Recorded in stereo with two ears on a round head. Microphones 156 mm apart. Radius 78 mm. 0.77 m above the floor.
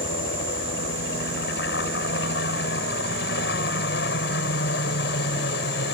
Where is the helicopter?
65° left (ahead or behind).